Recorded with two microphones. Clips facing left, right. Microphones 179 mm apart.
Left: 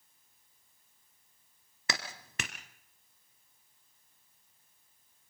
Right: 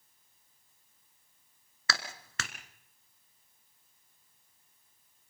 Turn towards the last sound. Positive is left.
turn(degrees=20)  # may be behind; listen again after turning